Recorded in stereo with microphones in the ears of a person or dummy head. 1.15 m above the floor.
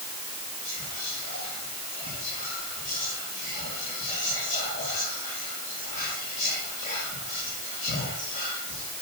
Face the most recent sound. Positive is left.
turn(degrees=50)  # may be behind; listen again after turning